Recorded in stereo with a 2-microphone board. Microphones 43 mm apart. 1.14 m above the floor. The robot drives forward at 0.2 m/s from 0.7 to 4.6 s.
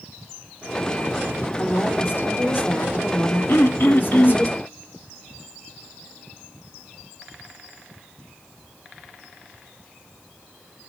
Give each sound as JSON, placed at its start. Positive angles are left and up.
{"t": 1.6, "sound": "a woman speaking", "side_deg": 60, "distance_m": 4.0}
{"t": 3.5, "sound": "throat clearing", "side_deg": 55, "distance_m": 1.1}